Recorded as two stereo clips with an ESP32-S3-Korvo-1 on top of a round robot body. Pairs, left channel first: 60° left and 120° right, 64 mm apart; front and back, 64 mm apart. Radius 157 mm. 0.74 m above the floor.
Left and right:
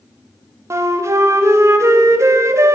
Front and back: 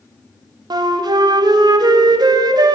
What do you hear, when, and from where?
0.7 s a flute: 170° right, 0.5 m